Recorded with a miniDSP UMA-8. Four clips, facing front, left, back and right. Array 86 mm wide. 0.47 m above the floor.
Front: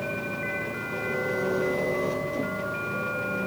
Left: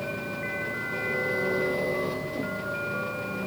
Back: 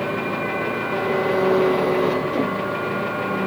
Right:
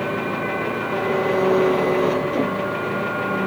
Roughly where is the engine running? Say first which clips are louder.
Right 9 dB, back 8 dB; behind right.